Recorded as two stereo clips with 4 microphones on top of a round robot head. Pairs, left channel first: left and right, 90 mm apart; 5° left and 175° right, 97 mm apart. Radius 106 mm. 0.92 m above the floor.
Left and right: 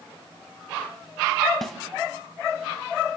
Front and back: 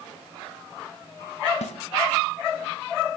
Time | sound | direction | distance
1.6 | a snare drum | 5° left | 2.5 m